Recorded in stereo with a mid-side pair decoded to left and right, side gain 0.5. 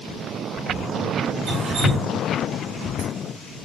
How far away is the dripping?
About 1.3 m.